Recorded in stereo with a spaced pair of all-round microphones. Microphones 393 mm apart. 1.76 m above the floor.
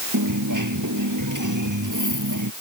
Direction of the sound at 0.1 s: 50° right (ahead or behind).